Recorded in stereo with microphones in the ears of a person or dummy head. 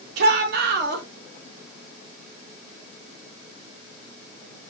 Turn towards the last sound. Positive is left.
turn(degrees=-60)  # may be behind; listen again after turning